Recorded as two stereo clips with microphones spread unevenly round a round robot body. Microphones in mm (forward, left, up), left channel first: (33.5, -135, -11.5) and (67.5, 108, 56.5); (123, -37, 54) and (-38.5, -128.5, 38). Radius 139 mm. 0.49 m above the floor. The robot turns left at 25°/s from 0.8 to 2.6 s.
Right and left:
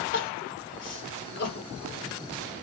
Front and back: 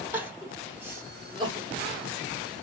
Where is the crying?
75° right, 1.4 m; by 2.6 s 120° right, 1.4 m.